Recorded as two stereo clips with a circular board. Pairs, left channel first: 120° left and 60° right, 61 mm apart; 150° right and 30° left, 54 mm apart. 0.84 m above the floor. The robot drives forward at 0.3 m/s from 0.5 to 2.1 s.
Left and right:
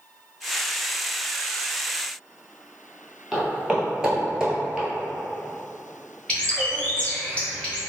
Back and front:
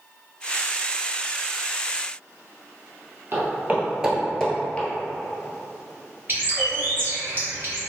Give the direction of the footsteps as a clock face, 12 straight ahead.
11 o'clock.